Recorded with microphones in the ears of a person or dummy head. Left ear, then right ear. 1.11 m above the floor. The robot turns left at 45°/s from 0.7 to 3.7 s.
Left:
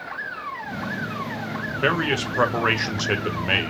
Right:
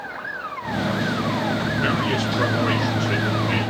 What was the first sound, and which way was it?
A man speaking, 165° left.